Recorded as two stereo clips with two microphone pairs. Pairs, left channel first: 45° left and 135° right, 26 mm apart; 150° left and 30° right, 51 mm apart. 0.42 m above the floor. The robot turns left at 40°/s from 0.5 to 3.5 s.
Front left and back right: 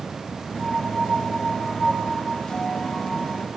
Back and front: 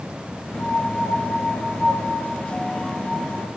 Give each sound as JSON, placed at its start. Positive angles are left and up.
{"t": 0.6, "sound": "a piano", "azimuth_deg": 160, "distance_m": 2.5}